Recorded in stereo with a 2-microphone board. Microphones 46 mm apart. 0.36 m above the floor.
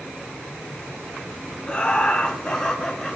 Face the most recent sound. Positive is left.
turn(degrees=10)  # may be behind; listen again after turning